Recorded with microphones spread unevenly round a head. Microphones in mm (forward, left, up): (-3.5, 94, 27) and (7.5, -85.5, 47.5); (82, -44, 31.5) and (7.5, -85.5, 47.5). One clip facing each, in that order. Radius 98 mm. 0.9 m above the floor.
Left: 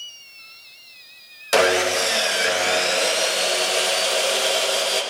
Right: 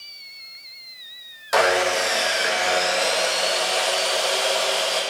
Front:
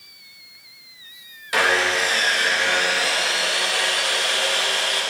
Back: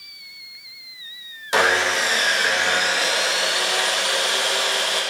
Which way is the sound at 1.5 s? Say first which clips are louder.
Left 1 dB, back 1 dB; 135° left.